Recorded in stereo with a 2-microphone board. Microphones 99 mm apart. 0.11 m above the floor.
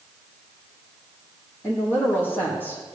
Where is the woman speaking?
20° left (ahead or behind), 6 m.